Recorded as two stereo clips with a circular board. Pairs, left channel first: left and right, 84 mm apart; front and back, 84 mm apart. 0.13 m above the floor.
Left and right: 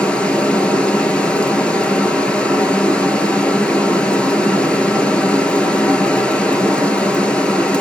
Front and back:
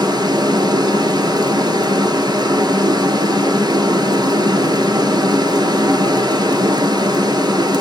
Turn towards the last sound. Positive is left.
turn(degrees=165)